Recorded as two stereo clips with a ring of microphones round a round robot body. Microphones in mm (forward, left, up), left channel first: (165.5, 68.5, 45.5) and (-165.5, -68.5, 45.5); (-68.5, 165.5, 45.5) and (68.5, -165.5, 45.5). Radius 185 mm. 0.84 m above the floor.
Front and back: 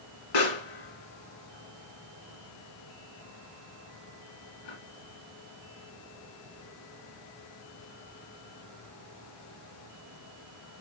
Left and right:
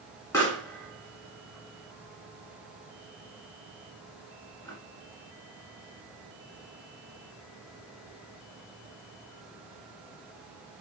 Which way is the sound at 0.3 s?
30° left.